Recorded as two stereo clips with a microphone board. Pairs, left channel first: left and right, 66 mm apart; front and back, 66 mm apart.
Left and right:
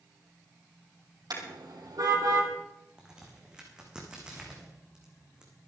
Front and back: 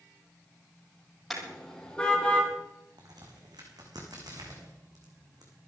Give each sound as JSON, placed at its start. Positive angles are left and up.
{"t": 1.3, "sound": "a car horn", "azimuth_deg": -90, "distance_m": 3.5}
{"t": 3.0, "sound": "a crack", "azimuth_deg": -165, "distance_m": 3.5}